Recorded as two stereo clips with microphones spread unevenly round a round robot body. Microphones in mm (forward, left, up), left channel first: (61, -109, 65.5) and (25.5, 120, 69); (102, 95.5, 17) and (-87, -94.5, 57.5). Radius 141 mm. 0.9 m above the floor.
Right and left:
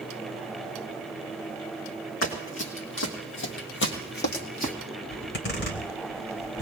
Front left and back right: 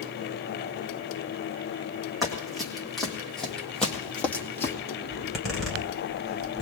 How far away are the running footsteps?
About 3 m.